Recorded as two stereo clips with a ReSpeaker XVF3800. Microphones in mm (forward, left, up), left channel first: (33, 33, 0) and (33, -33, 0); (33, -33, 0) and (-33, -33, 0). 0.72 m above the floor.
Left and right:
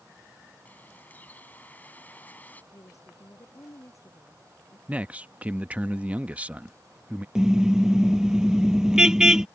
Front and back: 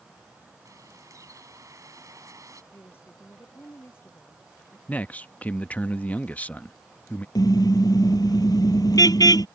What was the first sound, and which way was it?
A bird, 150° left.